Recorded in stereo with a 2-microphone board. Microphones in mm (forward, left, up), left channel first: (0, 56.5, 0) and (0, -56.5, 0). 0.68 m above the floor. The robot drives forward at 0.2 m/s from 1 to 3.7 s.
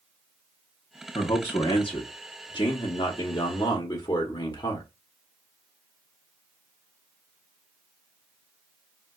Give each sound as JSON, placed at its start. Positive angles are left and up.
{"t": 1.1, "sound": "a man speaking", "side_deg": 50, "distance_m": 0.7}